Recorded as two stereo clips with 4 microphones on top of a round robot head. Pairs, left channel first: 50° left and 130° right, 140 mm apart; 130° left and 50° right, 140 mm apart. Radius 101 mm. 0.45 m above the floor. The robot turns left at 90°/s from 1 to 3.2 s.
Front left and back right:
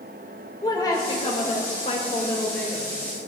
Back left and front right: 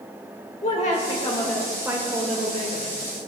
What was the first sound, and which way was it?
A woman speaking, 105° left.